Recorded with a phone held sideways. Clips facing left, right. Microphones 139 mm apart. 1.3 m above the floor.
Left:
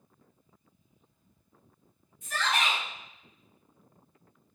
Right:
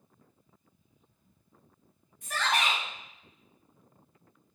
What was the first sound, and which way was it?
A shout, 55° right (ahead or behind).